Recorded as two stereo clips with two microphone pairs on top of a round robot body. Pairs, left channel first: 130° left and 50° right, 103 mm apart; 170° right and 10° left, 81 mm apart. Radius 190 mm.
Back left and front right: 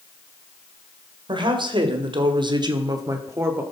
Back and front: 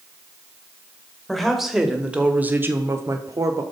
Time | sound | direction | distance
1.3 | a woman speaking | 75° right | 2 m